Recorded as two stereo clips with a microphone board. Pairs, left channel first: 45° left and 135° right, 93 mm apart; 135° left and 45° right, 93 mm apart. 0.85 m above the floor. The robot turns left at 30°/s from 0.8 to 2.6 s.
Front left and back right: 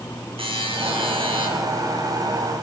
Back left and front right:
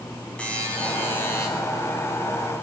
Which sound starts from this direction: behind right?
A buzzer, at 0.4 s.